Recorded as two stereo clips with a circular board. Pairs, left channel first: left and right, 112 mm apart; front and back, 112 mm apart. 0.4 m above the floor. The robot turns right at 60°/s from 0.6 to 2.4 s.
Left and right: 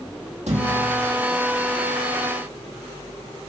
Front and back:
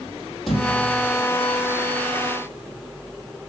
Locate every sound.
0.5 s a thud: 90° right, 3.5 m; by 1.2 s 55° right, 3.5 m